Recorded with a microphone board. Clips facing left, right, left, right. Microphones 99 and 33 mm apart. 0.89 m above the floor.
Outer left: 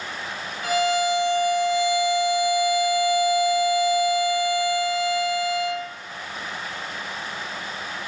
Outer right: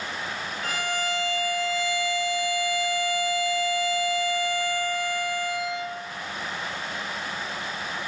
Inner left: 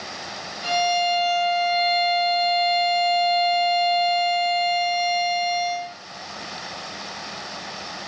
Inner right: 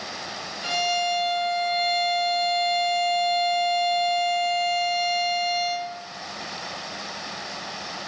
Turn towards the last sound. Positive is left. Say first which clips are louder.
# outer left 9 dB, inner left 3 dB
turn(degrees=10)  # may be behind; listen again after turning